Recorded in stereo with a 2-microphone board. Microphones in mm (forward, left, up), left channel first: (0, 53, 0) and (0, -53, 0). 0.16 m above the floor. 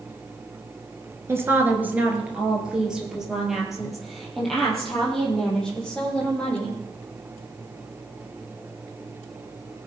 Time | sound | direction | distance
1.3 | a woman speaking | 25° right (ahead or behind) | 2 m